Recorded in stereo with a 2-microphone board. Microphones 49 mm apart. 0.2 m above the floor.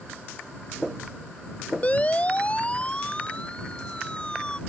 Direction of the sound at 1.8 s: 30° left (ahead or behind).